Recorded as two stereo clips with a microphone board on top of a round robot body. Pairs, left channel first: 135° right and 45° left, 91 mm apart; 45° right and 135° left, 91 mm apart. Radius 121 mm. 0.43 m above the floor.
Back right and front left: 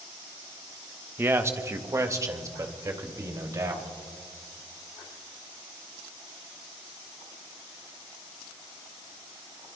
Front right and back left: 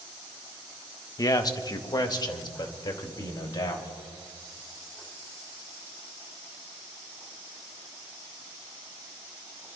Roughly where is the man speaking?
Ahead.